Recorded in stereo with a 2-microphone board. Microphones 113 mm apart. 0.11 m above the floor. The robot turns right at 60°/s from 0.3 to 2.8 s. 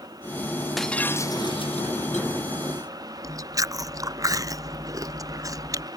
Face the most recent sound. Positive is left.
turn(degrees=-30)  # may be behind; listen again after turning